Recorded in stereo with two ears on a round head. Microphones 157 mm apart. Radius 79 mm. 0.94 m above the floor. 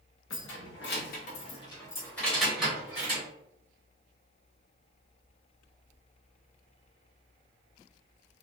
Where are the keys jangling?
80° left, 0.9 m; by 3.2 s 10° right (ahead or behind), 1.5 m.